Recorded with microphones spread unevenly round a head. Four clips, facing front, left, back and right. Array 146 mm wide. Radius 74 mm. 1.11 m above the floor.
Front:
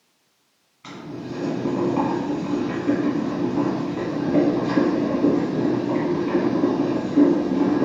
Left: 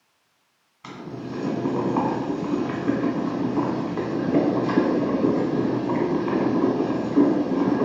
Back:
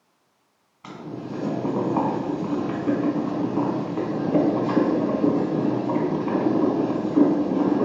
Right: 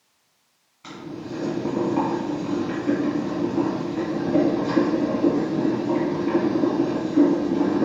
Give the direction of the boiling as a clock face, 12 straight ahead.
7 o'clock.